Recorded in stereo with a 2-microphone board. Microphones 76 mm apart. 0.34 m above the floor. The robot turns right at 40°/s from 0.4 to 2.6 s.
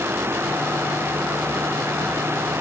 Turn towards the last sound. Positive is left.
No sound to turn to.